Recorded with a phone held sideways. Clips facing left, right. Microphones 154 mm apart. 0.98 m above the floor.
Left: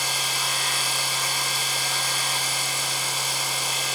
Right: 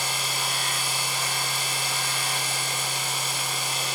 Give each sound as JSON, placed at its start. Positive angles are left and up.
{"t": 0.0, "sound": "a machine running", "side_deg": 75, "distance_m": 1.8}